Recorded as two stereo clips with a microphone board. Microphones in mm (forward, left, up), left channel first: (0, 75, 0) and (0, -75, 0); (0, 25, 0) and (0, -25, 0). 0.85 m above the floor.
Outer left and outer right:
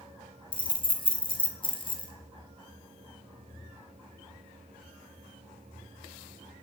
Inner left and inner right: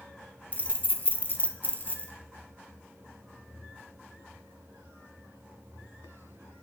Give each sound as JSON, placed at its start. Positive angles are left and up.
{"t": 0.5, "sound": "keys jangling", "side_deg": 35, "distance_m": 0.5}